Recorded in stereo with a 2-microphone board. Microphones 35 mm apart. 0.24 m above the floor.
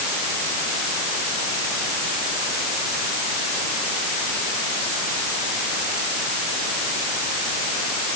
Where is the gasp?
No gasp in this recording.